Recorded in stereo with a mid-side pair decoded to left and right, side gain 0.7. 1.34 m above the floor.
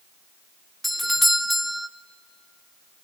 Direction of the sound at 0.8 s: 5° left.